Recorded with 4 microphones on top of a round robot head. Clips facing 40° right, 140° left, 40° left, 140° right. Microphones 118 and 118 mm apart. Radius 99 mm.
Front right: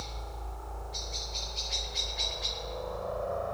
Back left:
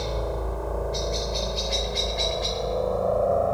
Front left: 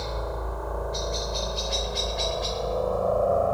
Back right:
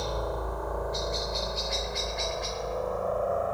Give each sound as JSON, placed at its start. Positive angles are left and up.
{"t": 0.0, "sound": "a helicopter", "azimuth_deg": 135}